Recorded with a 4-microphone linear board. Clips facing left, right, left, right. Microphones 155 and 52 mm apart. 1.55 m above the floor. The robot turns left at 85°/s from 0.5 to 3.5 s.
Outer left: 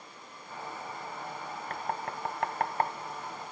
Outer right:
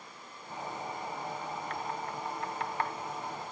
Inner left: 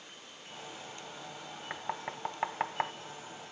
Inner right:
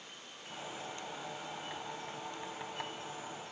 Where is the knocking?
45° left (ahead or behind); by 2.9 s 30° left (ahead or behind).